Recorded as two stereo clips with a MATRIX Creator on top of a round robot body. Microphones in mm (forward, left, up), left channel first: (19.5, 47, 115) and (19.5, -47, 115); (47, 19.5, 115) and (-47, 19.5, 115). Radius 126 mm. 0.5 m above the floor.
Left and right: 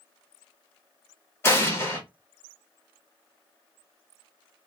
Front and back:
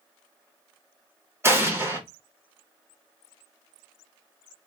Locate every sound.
1.4 s an explosion: 135° left, 1.3 m